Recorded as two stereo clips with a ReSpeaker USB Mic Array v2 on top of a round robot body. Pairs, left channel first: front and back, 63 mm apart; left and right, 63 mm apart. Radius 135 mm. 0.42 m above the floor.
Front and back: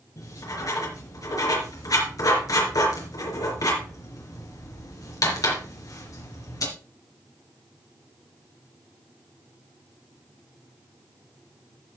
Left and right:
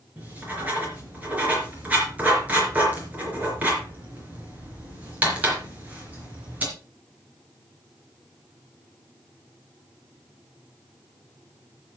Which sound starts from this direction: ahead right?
Writing, at 0.2 s.